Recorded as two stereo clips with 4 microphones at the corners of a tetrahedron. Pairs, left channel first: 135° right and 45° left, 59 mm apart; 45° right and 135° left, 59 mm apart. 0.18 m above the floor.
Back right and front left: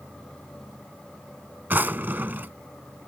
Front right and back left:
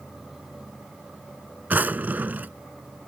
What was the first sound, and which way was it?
A drawer, 90° left.